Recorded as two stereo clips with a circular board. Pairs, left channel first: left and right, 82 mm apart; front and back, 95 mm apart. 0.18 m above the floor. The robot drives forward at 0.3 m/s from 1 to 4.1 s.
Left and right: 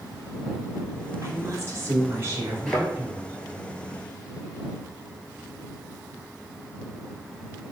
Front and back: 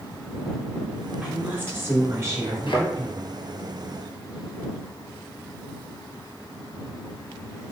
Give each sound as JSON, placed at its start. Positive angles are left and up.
{"t": 1.2, "sound": "a woman speaking", "azimuth_deg": -115, "distance_m": 1.4}
{"t": 2.7, "sound": "a thud", "azimuth_deg": 15, "distance_m": 1.5}